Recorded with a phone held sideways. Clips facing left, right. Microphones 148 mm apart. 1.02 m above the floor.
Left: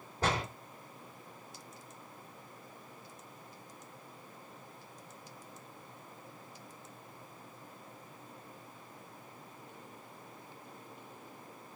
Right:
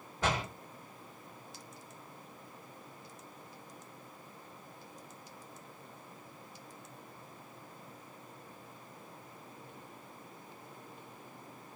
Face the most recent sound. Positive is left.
turn(degrees=40)  # may be behind; listen again after turning